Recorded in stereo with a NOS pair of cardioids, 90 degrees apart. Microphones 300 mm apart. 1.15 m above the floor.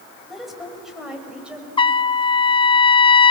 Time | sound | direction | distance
0.3 | a woman speaking | straight ahead | 6.5 m
1.8 | a trumpet | 15° left | 0.5 m